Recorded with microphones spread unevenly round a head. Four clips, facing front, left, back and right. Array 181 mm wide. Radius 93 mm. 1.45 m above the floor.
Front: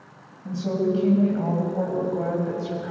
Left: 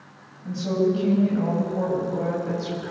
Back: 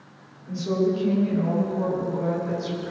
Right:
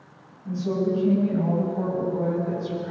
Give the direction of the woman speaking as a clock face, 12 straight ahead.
11 o'clock.